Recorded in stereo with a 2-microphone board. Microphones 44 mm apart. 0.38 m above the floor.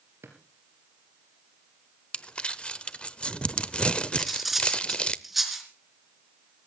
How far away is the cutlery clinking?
About 3 m.